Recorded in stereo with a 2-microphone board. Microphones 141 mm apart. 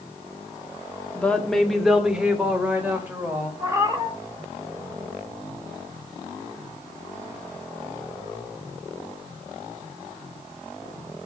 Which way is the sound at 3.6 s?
20° right (ahead or behind).